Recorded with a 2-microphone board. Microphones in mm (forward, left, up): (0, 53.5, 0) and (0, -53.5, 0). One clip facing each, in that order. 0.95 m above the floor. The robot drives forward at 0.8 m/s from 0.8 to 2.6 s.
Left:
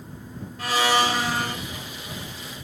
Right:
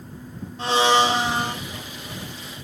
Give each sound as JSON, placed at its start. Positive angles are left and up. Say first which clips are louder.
{"t": 0.6, "sound": "a blender", "louder": "right 3 dB", "side_deg": -25, "distance_m": 2.0}